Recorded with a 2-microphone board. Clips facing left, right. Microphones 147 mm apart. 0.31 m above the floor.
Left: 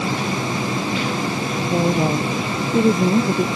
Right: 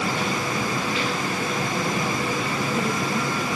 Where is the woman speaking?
45° left (ahead or behind).